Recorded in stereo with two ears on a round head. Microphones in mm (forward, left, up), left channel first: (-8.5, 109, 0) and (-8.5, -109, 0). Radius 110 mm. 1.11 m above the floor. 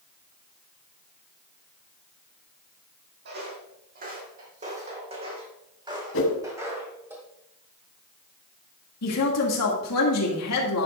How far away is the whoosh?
About 1.7 m.